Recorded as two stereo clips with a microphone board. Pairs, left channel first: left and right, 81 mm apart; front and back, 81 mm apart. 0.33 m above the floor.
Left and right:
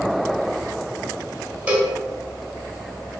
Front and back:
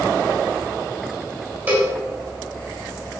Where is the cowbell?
140° right, 1.6 m.